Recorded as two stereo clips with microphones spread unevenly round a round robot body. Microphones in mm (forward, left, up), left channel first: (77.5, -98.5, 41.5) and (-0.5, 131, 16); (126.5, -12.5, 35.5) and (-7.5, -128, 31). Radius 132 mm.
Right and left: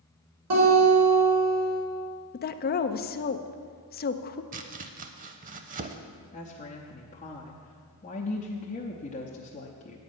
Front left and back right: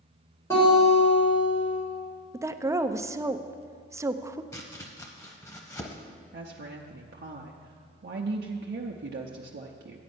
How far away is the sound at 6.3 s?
About 0.7 m.